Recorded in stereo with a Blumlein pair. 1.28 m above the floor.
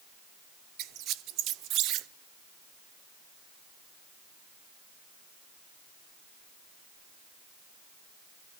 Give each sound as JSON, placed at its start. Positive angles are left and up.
{"t": 0.8, "sound": "a squeak", "azimuth_deg": -35, "distance_m": 0.6}